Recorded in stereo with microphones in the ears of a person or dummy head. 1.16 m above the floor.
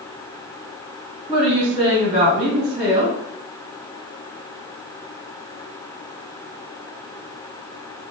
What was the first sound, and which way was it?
A woman speaking, 30° right (ahead or behind).